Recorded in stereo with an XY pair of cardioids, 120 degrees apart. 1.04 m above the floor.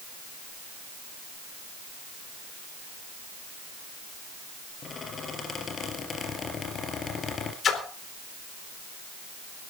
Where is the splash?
45° left, 4 m.